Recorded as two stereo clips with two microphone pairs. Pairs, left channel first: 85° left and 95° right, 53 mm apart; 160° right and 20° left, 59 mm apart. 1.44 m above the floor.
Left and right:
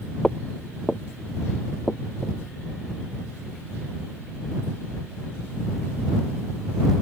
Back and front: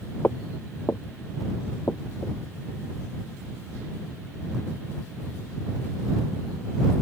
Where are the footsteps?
160° left; by 2.4 s 165° left.